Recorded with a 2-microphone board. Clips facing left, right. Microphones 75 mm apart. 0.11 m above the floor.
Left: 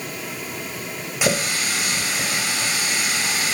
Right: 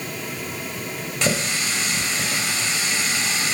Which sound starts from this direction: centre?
A running tap, at 1.2 s.